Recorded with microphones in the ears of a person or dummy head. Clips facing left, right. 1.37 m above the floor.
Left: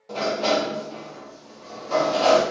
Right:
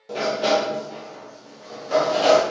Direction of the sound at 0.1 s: 15° right (ahead or behind).